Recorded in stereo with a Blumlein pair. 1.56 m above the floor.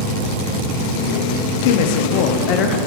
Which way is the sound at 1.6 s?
55° left.